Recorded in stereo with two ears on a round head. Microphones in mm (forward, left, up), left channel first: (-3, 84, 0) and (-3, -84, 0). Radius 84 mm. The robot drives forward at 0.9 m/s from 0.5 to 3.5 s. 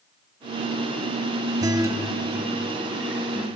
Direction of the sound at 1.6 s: 20° right (ahead or behind).